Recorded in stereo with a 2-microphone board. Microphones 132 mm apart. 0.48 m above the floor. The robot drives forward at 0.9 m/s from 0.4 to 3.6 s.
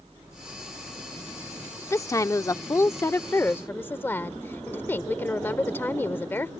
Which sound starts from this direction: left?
A woman speaking, at 1.9 s.